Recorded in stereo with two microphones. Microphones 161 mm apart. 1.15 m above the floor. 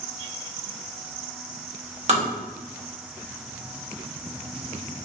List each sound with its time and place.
2.1 s tapping: 45° right (ahead or behind), 1.1 m